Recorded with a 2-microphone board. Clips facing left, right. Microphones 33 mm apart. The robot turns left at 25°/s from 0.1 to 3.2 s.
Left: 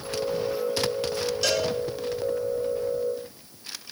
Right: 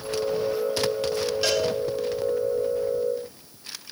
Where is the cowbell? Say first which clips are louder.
Right 1 dB; 20° right (ahead or behind), 2.5 m; by 1.6 s 15° right (ahead or behind), 2.5 m.